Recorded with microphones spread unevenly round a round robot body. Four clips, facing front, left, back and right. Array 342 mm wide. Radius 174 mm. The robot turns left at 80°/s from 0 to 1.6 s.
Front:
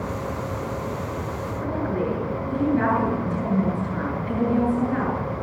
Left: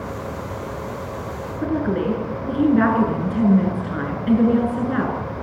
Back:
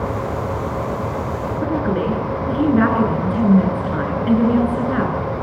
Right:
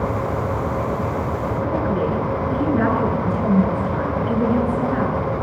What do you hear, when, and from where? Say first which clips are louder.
1.6 s a woman speaking: left 2 dB, back 5 dB; 145° left, 8 m